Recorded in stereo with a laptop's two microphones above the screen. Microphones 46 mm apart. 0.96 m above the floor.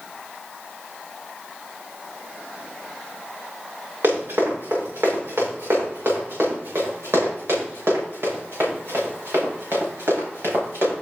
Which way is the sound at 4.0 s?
80° right.